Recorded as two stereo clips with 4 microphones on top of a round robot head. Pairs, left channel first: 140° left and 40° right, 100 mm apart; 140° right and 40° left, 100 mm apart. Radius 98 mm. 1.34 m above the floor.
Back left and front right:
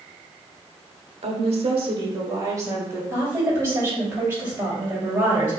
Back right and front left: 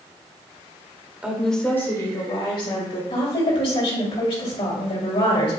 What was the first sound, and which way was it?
A woman speaking, 35° right.